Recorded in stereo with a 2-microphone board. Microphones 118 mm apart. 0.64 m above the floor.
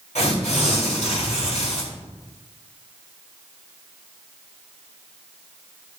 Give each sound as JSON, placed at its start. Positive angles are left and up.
{"t": 0.1, "sound": "tearing paper", "side_deg": 75, "distance_m": 4.0}